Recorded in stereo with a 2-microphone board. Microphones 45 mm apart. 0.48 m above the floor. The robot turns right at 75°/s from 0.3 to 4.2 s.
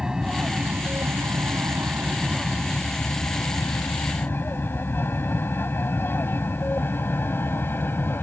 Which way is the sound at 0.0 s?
15° right (ahead or behind).